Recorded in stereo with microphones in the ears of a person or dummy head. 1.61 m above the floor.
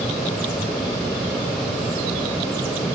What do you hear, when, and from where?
Only background noise.